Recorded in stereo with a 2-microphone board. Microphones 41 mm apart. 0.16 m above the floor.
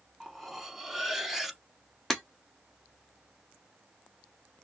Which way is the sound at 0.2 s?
5° right (ahead or behind).